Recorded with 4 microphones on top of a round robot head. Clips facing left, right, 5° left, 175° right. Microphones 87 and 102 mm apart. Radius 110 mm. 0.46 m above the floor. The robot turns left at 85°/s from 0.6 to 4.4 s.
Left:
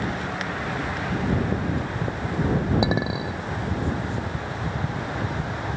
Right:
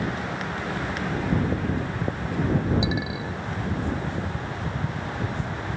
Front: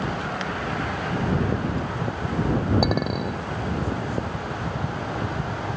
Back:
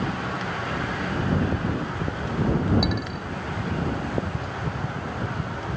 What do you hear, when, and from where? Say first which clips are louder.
2.8 s a clink: left 4 dB, front 5 dB; 50° left; by 3.4 s straight ahead